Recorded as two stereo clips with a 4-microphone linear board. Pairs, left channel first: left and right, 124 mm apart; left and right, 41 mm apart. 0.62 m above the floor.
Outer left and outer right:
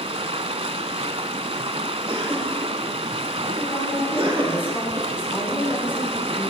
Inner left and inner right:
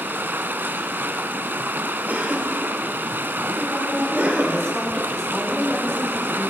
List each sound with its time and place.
0.0 s running water: 55° right (ahead or behind), 0.7 m
2.1 s a cough: 50° right (ahead or behind), 2.5 m
3.6 s a woman speaking: 20° left (ahead or behind), 5.5 m